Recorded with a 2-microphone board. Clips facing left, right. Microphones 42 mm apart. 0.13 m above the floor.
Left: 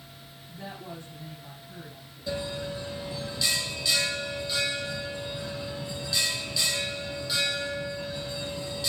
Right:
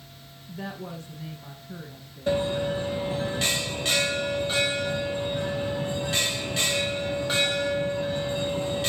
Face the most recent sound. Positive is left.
turn(degrees=-45)  # may be behind; listen again after turning